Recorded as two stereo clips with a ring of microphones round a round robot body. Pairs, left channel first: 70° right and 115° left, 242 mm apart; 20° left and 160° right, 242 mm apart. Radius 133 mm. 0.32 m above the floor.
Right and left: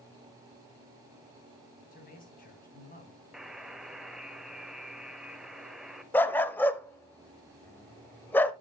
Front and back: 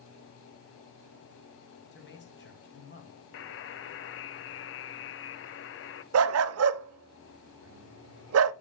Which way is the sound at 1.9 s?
15° right.